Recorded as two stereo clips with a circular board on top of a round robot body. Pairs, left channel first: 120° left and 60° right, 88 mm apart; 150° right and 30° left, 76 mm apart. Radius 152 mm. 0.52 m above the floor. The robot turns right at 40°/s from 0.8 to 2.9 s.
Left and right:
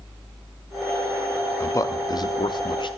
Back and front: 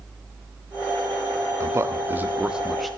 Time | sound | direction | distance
1.6 | a man speaking | 70° left | 1.1 m